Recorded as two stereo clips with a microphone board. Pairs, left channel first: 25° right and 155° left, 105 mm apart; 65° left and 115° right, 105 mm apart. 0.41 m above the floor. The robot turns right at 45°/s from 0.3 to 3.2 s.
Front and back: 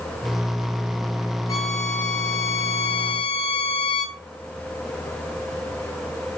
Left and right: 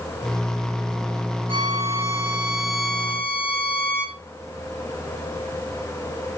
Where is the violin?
80° right, 4.5 m; by 4.2 s 5° right, 4.5 m.